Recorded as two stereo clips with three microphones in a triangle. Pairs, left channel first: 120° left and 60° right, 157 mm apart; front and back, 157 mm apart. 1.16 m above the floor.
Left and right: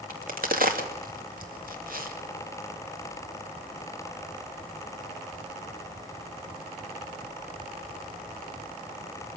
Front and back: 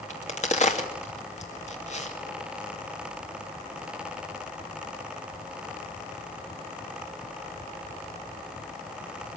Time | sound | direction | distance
0.1 | a crack | 40° right | 2.5 m